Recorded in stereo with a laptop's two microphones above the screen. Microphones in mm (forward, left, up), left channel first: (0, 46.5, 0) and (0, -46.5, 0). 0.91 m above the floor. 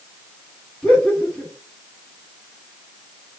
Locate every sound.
0.8 s laughter: 5° left (ahead or behind), 3 m